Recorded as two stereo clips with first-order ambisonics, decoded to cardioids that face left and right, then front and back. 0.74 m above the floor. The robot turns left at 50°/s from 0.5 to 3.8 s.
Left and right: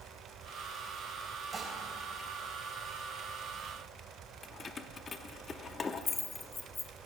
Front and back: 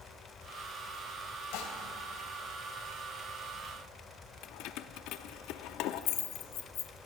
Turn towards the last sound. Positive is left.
turn(degrees=25)